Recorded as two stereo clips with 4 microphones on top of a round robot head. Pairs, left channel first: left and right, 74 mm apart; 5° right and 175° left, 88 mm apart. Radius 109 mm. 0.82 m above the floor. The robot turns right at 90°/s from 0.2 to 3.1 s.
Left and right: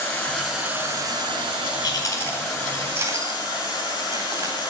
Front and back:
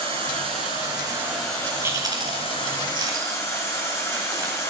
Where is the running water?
155° left, 4.5 m; by 4.7 s 55° left, 4.5 m.